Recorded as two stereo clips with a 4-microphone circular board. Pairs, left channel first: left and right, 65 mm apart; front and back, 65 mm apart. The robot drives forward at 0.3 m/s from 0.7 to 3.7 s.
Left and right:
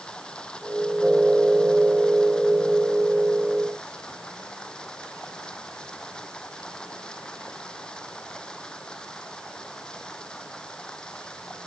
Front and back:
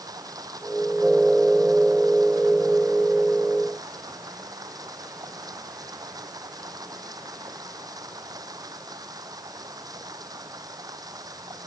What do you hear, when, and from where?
0.0 s running water: 170° left